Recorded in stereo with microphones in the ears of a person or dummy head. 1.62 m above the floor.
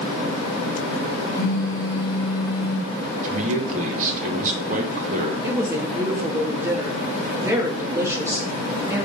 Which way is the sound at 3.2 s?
45° right (ahead or behind).